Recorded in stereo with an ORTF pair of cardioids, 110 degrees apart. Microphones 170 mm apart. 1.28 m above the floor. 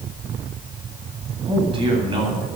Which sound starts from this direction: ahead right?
A man speaking, at 1.5 s.